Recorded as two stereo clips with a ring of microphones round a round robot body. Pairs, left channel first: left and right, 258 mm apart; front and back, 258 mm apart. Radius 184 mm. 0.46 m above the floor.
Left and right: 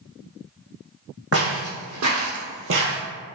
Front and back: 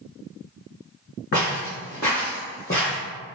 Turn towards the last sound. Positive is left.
turn(degrees=-65)